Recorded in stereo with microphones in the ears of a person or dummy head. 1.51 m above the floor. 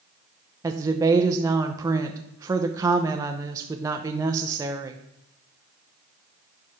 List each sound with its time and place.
0.6 s a woman speaking: 20° right (ahead or behind), 0.7 m